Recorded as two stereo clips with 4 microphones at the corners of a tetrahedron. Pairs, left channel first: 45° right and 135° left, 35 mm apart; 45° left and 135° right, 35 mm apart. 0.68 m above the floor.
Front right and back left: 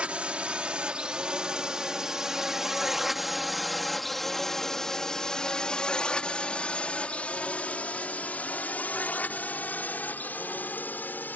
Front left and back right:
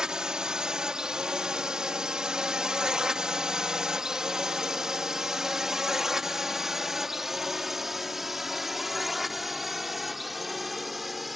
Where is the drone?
165° left; by 11.4 s 45° right.